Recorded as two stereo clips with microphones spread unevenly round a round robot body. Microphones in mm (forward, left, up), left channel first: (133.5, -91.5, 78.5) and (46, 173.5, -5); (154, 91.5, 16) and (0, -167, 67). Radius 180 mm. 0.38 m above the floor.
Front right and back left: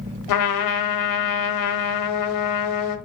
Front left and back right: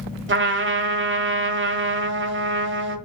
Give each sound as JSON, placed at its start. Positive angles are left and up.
{"t": 0.3, "sound": "a trumpet", "azimuth_deg": -70, "distance_m": 1.7}